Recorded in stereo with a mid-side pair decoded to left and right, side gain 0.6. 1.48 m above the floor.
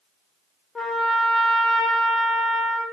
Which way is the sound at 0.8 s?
15° left.